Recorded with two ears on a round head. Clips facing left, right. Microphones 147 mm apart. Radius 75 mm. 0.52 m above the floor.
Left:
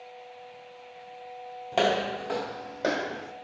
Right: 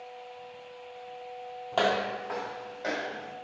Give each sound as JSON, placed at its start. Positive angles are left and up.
{"t": 1.7, "sound": "footsteps", "side_deg": 15, "distance_m": 0.7}